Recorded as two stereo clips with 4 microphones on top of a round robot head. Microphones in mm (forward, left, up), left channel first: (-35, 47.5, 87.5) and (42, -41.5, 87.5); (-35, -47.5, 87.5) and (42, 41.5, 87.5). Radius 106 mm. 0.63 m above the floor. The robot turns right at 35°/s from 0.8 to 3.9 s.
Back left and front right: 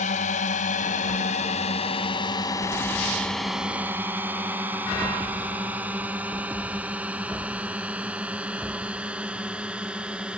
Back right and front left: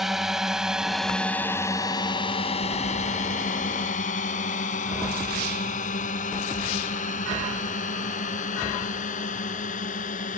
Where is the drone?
135° left; by 10.4 s 130° right.